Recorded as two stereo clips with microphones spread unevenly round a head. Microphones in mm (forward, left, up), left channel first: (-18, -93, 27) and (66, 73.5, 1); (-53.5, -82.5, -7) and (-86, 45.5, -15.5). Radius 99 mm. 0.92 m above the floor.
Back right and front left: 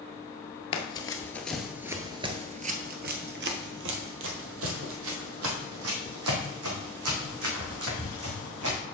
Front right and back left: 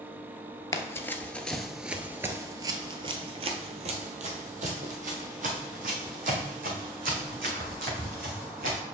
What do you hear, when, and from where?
0.7 s running footsteps: 115° right, 1.0 m; by 8.8 s 65° left, 4 m